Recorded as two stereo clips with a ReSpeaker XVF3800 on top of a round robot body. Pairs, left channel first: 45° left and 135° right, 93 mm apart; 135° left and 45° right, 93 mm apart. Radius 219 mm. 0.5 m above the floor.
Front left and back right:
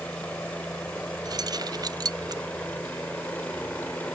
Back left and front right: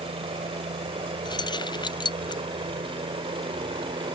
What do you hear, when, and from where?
0.0 s a helicopter: 30° right
1.2 s keys jangling: straight behind